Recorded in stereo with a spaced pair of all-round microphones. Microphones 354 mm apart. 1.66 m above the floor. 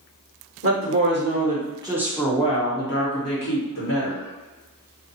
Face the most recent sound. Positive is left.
turn(degrees=65)  # may be behind; listen again after turning